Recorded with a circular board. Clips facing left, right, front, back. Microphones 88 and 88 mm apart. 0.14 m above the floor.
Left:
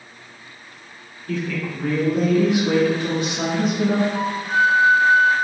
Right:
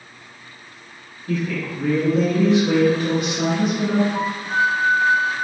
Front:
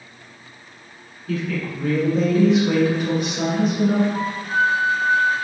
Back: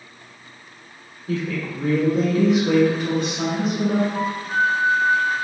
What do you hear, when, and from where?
1.3 s a woman speaking: 160° right, 1.4 m; by 4.0 s 60° left, 1.7 m
4.1 s a flute: 50° right, 1.3 m